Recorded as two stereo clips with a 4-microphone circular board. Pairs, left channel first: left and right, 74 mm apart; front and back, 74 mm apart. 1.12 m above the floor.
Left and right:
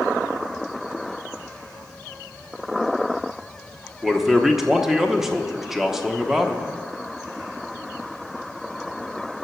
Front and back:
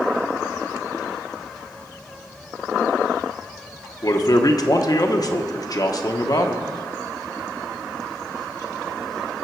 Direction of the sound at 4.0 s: 5° right.